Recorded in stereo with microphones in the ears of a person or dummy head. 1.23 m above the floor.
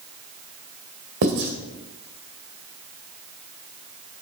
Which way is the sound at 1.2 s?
65° right (ahead or behind).